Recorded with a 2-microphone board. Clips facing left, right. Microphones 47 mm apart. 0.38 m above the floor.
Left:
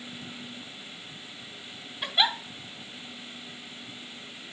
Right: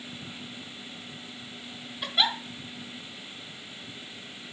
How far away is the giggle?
About 1.8 m.